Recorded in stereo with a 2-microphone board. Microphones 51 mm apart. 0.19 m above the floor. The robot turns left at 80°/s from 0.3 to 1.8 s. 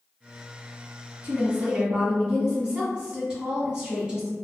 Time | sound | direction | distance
1.2 | a woman speaking | 105° right | 1.9 m